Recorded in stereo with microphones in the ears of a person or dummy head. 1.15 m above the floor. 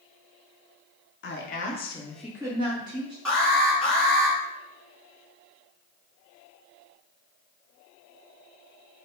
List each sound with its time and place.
1.2 s a woman speaking: 50° left (ahead or behind), 0.7 m; by 3.1 s 50° right (ahead or behind), 0.7 m
3.2 s an alarm: centre (ahead or behind), 1.0 m